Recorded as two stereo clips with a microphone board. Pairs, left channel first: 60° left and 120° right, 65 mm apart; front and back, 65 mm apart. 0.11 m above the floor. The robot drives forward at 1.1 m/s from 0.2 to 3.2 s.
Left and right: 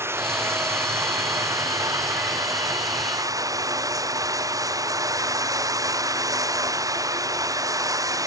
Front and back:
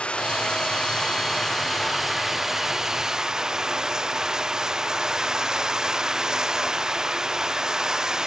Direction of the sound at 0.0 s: 75° right.